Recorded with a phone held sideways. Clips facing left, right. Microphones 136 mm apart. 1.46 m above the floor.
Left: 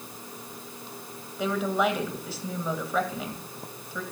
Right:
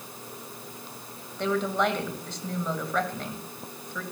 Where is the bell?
No bell in this recording.